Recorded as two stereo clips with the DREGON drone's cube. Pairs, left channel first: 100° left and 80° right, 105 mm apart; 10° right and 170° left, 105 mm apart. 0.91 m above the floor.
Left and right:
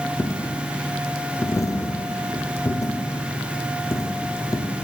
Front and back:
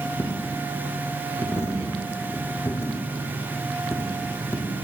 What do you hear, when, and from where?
0.2 s a dropped coin: 45° left, 0.6 m